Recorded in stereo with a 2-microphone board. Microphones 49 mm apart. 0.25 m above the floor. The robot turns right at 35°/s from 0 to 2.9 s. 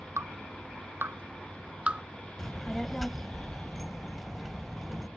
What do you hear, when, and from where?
0.2 s dripping: 85° right; by 2.0 s 20° right (ahead or behind)
2.4 s a child speaking: 10° left (ahead or behind); by 5.1 s centre (ahead or behind)